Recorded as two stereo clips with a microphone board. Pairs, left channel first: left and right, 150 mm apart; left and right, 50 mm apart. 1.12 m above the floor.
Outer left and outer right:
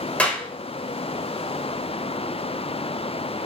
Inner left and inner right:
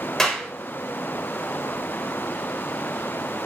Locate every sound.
0.2 s a clap: 10° left (ahead or behind), 4.5 m